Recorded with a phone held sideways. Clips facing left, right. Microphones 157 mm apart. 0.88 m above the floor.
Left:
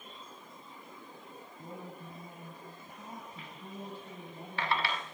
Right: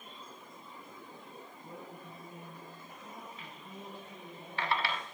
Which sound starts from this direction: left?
A woman speaking, at 1.6 s.